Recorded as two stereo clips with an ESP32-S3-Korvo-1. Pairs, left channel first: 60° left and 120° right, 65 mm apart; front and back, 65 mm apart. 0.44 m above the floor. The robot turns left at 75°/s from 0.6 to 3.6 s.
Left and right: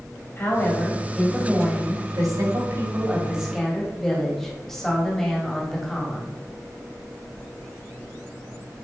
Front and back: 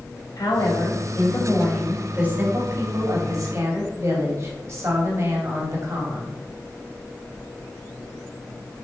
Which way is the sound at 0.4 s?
10° left.